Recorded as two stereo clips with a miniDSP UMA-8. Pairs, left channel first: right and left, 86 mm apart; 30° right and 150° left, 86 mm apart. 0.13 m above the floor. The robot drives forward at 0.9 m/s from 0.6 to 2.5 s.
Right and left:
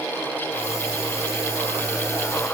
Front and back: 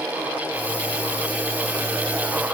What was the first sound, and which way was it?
Only background noise.